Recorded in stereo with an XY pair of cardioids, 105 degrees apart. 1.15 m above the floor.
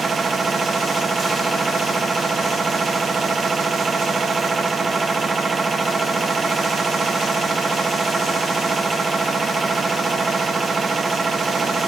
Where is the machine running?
30° right, 0.9 m.